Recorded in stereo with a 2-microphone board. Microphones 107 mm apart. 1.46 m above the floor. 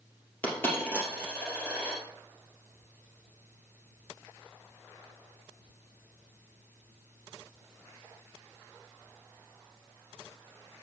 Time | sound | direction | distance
0.4 | a dropped coin | 20° left (ahead or behind) | 2.5 m